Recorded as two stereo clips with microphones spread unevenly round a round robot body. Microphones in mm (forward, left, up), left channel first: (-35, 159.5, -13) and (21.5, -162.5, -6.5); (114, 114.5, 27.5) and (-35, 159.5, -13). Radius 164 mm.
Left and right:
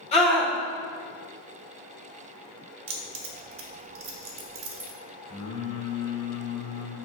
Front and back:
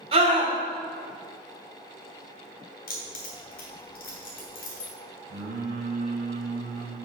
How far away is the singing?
About 1.3 m.